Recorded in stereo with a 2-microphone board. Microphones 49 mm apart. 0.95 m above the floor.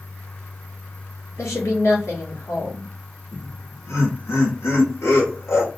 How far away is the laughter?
About 2.0 m.